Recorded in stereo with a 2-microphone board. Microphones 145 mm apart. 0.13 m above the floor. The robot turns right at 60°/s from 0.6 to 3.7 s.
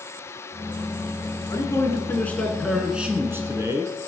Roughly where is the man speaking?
Left.